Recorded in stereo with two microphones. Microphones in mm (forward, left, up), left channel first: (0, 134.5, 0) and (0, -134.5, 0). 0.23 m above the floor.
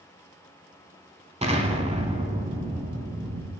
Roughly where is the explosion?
Right.